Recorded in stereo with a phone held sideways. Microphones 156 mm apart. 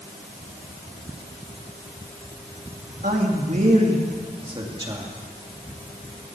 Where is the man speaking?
65° right (ahead or behind), 2.5 m; by 5.1 s 25° right (ahead or behind), 3 m.